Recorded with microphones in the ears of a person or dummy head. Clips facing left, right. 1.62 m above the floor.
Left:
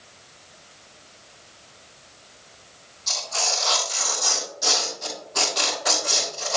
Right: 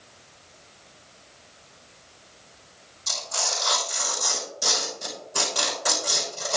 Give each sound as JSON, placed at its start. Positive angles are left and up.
{"t": 3.1, "sound": "tearing paper", "side_deg": -45, "distance_m": 6.0}